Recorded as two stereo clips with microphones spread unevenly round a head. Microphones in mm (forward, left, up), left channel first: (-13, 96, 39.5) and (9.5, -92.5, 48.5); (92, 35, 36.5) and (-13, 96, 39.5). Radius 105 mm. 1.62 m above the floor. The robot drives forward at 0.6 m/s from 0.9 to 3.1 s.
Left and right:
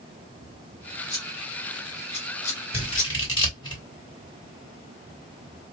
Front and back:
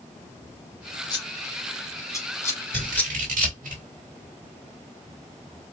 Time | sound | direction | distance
1.1 | scissors | 25° left | 2.5 m
2.7 | scissors | 160° left | 1.4 m